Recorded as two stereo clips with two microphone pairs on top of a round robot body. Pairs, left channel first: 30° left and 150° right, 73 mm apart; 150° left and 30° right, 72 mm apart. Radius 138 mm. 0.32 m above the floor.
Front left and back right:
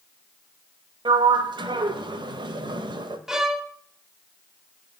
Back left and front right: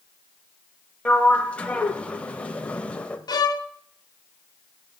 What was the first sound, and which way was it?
A sliding door, 135° right.